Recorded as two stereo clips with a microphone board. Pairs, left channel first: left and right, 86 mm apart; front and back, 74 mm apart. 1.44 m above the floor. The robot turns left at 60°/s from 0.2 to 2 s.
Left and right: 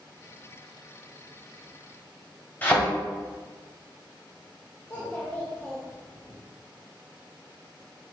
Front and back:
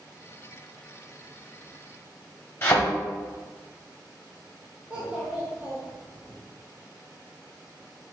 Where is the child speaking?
120° left, 0.8 m.